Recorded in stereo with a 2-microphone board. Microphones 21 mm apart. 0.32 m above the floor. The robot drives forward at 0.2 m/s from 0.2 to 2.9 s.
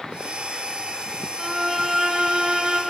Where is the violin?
35° right (ahead or behind), 0.6 m; by 2.8 s 45° right (ahead or behind), 0.5 m.